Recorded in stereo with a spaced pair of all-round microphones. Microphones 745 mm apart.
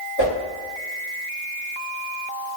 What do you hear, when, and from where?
0.2 s a whoosh: 35° left (ahead or behind), 1.9 m